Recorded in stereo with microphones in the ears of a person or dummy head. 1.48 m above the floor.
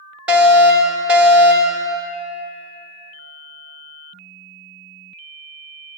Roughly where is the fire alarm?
Centre.